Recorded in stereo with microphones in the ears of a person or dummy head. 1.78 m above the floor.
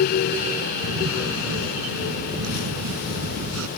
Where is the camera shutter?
85° right.